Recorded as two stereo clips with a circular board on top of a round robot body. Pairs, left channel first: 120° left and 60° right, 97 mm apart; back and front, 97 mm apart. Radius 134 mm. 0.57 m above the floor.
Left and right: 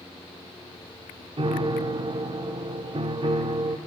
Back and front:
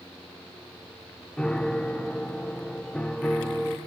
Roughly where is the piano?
Right.